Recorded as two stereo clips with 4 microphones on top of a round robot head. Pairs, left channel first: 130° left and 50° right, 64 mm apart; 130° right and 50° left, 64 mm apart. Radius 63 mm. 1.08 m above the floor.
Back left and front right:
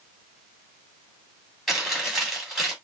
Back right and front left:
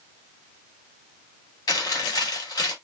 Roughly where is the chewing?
Behind right.